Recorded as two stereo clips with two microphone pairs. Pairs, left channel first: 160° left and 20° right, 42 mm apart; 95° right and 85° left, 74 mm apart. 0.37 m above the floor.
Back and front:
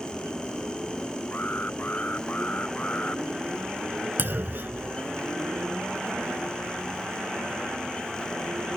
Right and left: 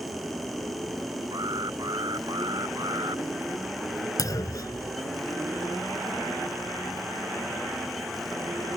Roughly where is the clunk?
Ahead right.